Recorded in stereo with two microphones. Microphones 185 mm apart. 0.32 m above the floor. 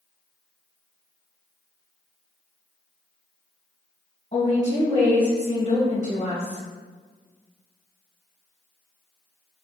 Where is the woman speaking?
35° left (ahead or behind), 1.8 m.